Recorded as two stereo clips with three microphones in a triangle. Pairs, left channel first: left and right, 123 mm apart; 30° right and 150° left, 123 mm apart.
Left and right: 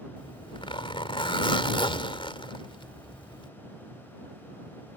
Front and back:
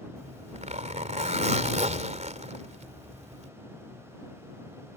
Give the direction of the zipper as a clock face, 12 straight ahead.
8 o'clock.